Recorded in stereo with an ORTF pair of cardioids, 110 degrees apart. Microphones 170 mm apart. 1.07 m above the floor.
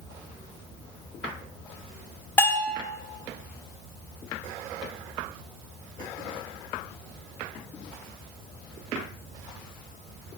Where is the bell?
15° left, 3 m.